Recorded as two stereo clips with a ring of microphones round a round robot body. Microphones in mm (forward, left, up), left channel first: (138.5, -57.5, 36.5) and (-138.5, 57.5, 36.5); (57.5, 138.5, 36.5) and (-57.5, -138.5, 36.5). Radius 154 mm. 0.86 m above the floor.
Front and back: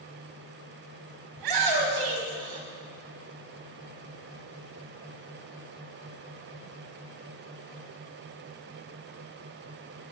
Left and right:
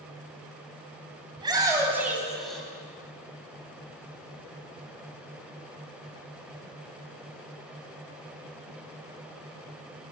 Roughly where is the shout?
Behind.